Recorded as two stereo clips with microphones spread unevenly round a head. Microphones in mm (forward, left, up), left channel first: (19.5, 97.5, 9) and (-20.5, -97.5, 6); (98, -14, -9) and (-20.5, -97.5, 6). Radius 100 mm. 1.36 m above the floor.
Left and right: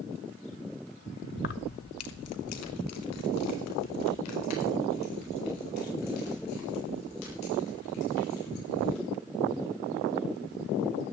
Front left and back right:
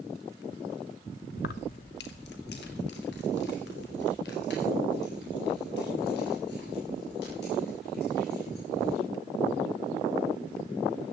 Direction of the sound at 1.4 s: 30° left.